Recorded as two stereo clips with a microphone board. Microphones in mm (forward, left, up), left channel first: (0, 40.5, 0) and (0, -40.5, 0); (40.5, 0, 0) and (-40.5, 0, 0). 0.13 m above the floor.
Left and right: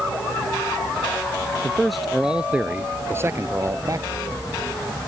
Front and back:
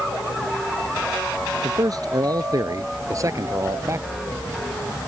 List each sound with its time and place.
1.6 s a man speaking: 170° left; by 4.1 s 130° right